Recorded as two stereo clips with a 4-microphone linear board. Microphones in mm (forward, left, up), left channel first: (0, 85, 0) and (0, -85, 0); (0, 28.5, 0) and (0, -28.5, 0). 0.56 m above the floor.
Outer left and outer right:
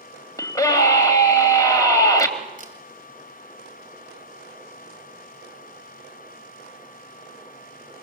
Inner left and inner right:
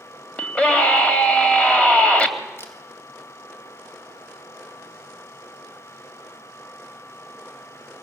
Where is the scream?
20° left (ahead or behind), 3.5 m.